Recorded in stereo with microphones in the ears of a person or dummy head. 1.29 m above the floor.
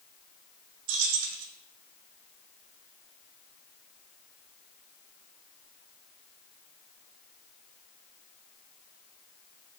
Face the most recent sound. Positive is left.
turn(degrees=-65)  # may be behind; listen again after turning